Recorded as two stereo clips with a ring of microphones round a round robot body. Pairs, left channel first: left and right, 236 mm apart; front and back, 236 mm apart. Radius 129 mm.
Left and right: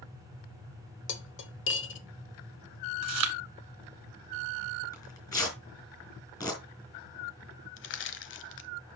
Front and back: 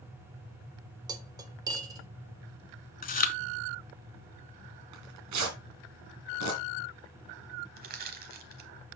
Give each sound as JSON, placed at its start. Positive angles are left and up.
{"t": 1.1, "sound": "cutlery clinking", "azimuth_deg": 110, "distance_m": 0.9}
{"t": 3.0, "sound": "chewing", "azimuth_deg": -55, "distance_m": 0.8}
{"t": 4.9, "sound": "tearing paper", "azimuth_deg": 165, "distance_m": 3.0}
{"t": 7.8, "sound": "crushing", "azimuth_deg": 125, "distance_m": 0.9}